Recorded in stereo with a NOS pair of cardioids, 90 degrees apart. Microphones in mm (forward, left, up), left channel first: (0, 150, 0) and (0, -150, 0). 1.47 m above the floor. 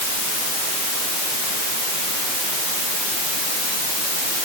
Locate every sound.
Only background noise.